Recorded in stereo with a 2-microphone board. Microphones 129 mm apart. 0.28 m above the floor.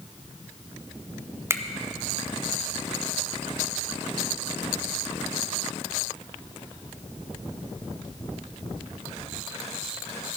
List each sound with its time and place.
1.5 s a finger snap: 20° right (ahead or behind), 0.8 m